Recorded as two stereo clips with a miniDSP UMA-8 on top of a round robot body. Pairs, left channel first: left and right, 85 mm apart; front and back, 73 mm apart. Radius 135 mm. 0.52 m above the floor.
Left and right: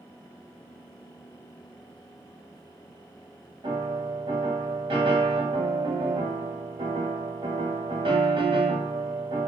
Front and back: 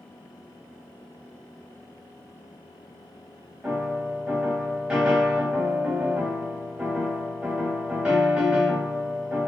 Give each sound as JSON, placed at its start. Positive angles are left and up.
{"t": 3.6, "sound": "a piano", "azimuth_deg": -100, "distance_m": 0.9}